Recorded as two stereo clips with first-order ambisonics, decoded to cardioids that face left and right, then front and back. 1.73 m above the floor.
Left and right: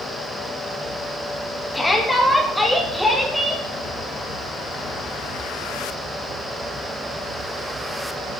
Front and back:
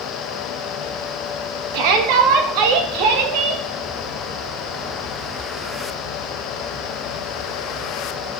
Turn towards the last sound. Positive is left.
turn(degrees=180)